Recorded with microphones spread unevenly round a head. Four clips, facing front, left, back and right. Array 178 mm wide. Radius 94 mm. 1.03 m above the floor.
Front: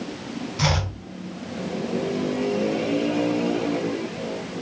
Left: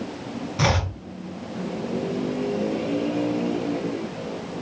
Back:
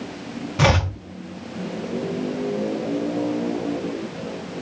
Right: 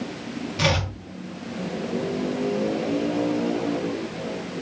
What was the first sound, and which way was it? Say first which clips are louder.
Chopping: left 1 dB, back 6 dB; straight behind.